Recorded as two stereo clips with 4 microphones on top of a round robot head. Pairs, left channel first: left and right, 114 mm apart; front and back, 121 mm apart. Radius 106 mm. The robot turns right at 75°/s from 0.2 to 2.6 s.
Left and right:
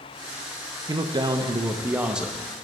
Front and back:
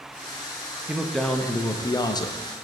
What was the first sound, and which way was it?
A man speaking, 110° right.